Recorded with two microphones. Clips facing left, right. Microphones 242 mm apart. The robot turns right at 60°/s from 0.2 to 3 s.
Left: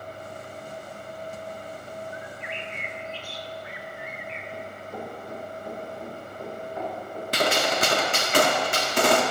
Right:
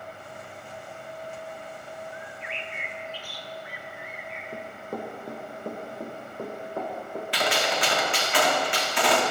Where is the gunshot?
45° left (ahead or behind), 1.9 m.